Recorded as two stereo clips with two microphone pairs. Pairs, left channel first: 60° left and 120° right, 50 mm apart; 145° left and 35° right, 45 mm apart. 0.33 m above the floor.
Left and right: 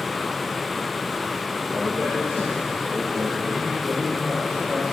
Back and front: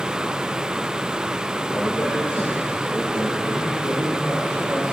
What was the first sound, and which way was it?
A man speaking, 175° left.